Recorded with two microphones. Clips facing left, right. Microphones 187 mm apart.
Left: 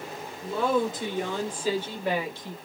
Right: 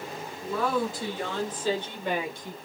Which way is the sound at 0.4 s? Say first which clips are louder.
Left 2 dB; 30° left (ahead or behind).